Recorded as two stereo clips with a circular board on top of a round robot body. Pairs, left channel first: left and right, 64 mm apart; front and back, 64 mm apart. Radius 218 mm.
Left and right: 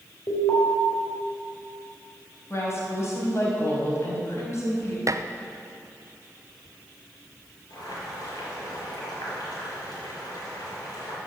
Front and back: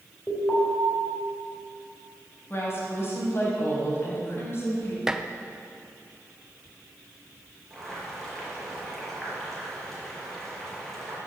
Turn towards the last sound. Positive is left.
turn(degrees=85)